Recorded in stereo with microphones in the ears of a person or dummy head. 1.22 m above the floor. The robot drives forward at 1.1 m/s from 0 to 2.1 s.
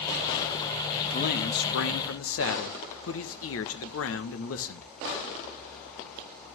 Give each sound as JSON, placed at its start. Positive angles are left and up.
{"t": 1.1, "sound": "a man speaking", "side_deg": 50, "distance_m": 1.8}